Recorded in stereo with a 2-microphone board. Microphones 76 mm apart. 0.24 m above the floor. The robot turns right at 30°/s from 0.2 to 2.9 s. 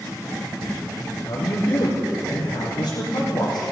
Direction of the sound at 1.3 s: 65° left.